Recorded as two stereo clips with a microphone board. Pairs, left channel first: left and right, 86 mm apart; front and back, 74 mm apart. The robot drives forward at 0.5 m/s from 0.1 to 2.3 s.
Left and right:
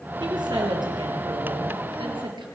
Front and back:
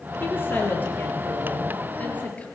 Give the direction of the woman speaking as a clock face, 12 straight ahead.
2 o'clock.